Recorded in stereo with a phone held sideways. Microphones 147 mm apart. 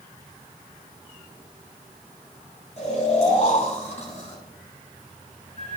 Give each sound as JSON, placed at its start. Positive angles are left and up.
{"t": 2.8, "sound": "snoring", "side_deg": 50, "distance_m": 8.0}